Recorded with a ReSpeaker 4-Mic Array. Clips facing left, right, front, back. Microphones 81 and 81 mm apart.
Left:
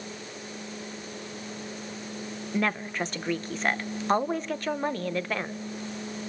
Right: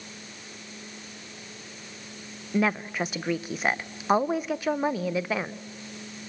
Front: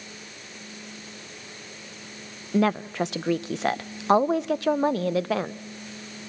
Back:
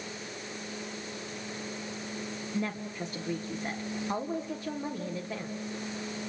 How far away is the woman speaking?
About 0.8 m.